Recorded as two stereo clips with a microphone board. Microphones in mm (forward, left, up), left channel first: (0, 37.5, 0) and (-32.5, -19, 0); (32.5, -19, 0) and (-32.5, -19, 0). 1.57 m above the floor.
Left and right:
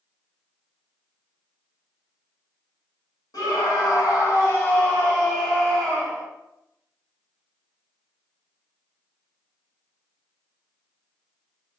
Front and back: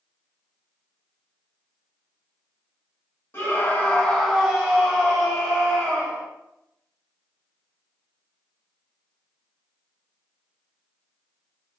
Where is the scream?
50° left, 0.9 m; by 6.3 s 150° left, 1.5 m.